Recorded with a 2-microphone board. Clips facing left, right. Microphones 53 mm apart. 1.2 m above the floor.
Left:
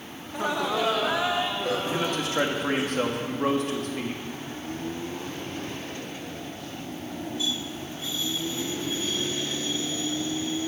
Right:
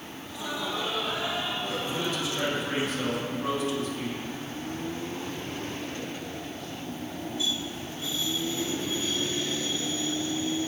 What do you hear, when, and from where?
0.2 s laughter: 35° left (ahead or behind), 1.3 m; by 2.8 s 65° left (ahead or behind), 3.5 m
1.8 s a man speaking: 50° left (ahead or behind), 2 m